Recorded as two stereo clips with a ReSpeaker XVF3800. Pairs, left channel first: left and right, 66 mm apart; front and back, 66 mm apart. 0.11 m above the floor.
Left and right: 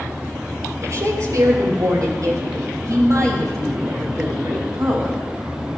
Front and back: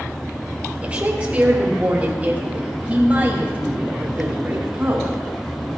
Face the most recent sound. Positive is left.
turn(degrees=-115)